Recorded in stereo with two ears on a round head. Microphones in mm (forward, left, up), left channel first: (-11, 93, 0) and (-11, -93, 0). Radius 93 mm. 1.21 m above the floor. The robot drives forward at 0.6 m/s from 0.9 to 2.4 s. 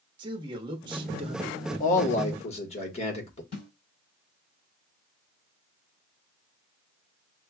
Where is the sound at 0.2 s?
25° right (ahead or behind), 1.1 m; by 1.6 s 30° right (ahead or behind), 0.8 m.